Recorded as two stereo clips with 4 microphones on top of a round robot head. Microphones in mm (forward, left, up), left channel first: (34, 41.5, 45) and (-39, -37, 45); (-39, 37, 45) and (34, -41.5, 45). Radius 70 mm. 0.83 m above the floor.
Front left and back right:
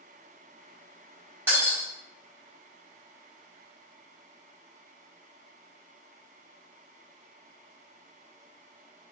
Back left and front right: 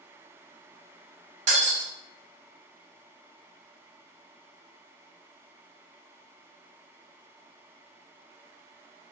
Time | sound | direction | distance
1.5 | breaking glass | 60° right | 1.3 m